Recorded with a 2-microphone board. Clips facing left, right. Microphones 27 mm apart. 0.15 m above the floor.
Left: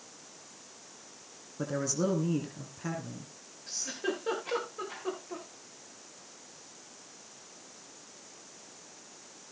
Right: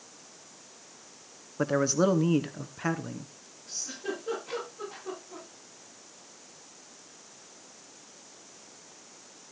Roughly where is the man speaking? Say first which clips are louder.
Right 7 dB; right.